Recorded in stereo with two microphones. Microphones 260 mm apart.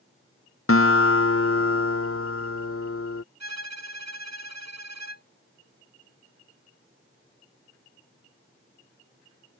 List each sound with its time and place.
0.7 s a guitar: 55° left (ahead or behind)
3.4 s a violin: 80° right